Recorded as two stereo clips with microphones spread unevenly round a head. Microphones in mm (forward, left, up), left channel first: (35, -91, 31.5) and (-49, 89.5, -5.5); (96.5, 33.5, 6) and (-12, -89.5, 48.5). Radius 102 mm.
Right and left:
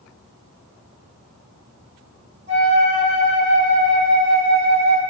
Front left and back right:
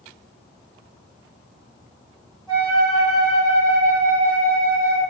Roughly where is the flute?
Behind.